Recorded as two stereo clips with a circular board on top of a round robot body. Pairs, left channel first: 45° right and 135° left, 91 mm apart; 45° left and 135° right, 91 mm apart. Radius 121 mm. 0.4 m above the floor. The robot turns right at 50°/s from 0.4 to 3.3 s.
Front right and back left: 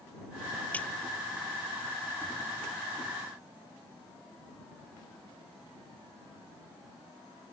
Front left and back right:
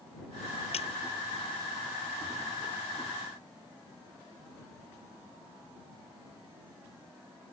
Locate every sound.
0.7 s a splash: 30° left; by 0.9 s 35° left